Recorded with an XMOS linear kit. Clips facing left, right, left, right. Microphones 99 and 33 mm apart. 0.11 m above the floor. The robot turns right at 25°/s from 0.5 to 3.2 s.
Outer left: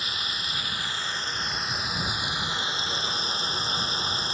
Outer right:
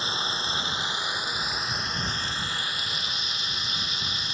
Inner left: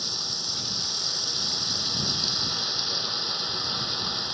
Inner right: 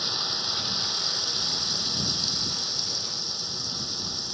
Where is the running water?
30° right; by 4.3 s 35° left.